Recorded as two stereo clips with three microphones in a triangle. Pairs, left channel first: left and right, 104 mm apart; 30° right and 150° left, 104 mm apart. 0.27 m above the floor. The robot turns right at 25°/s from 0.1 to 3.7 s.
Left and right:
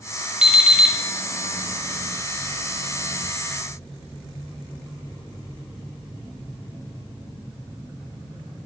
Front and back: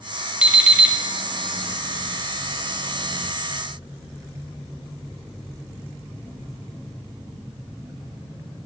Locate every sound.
0.4 s an alarm clock: 155° right, 0.7 m; by 1.0 s 145° right, 0.7 m